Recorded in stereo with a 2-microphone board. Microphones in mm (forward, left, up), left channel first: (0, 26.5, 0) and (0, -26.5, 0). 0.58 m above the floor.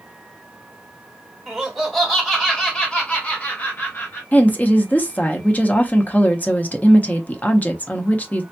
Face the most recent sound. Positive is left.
turn(degrees=30)  # may be behind; listen again after turning